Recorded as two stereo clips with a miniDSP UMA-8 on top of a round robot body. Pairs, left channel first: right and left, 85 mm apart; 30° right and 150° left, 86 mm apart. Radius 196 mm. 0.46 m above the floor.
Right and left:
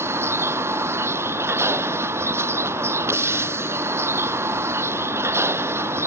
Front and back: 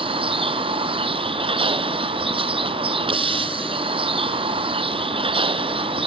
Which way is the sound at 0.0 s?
150° left.